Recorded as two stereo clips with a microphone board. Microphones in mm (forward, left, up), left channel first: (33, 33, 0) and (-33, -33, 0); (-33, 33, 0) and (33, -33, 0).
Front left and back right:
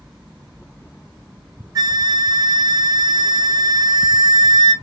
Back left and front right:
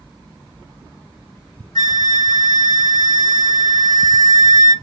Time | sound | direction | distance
1.8 | a flute | 175° left | 1.2 m